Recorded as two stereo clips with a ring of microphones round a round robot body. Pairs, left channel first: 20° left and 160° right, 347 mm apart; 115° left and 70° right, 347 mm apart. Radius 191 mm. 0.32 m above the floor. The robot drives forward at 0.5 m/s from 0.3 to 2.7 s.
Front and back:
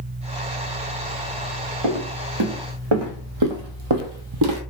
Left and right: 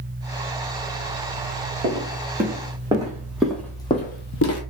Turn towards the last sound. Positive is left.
turn(degrees=160)